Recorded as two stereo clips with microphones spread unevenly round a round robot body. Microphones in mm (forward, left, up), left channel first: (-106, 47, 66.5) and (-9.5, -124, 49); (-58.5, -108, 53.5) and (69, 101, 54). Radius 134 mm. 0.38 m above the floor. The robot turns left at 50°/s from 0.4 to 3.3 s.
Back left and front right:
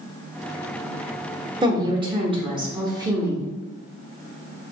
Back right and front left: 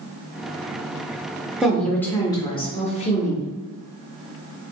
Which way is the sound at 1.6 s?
25° right.